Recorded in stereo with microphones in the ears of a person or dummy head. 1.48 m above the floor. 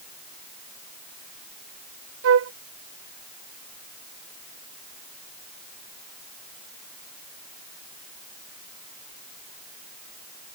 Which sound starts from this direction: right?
A flute, at 2.2 s.